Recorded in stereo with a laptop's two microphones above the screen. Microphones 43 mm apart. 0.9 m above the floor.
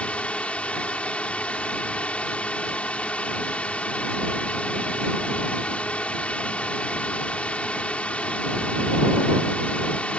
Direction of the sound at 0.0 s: 30° left (ahead or behind).